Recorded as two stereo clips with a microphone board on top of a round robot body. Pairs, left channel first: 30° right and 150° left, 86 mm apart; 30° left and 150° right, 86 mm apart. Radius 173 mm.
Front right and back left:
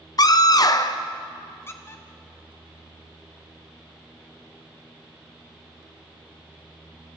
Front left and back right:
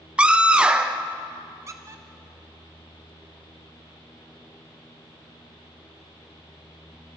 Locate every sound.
0.2 s a scream: 75° right, 1.6 m
1.7 s a squeak: 95° right, 0.6 m